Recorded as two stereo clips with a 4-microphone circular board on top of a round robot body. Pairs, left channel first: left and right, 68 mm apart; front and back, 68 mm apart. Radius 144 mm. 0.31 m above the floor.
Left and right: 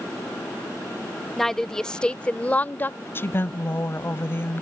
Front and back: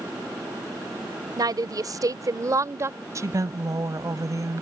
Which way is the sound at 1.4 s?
175° left.